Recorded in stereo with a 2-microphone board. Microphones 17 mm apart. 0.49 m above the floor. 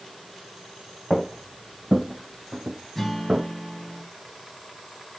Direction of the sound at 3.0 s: 15° left (ahead or behind).